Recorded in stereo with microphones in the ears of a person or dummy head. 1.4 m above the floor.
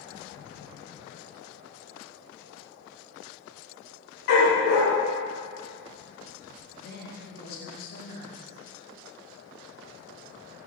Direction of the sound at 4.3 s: 55° left (ahead or behind).